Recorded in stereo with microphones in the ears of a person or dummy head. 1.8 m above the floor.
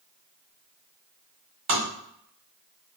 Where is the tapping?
30° right (ahead or behind), 1.9 m.